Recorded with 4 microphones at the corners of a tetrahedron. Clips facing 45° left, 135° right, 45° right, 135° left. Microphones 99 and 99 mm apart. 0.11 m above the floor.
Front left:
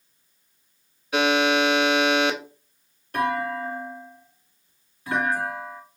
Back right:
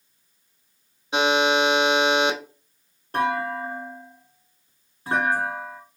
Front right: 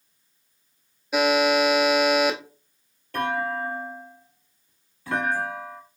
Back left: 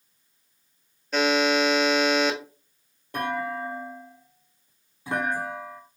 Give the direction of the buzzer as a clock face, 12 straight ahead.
4 o'clock.